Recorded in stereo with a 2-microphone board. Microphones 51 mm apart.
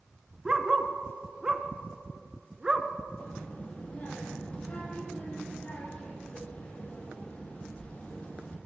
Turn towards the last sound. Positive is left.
turn(degrees=35)  # may be behind; listen again after turning